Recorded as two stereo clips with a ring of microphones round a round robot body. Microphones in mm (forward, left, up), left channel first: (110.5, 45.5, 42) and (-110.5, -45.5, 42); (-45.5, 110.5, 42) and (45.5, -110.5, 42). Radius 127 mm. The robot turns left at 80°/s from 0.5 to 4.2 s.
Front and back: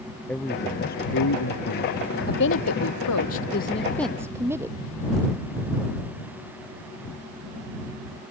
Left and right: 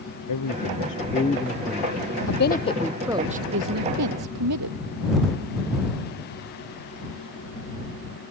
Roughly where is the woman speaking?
Left.